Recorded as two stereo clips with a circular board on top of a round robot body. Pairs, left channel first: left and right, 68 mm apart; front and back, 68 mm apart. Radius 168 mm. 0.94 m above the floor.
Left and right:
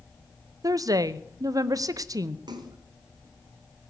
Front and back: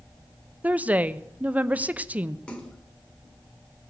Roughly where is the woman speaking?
Behind right.